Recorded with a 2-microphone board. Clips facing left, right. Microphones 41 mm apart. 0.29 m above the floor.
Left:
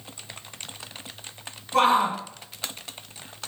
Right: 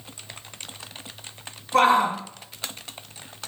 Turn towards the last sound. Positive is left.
turn(degrees=-30)  # may be behind; listen again after turning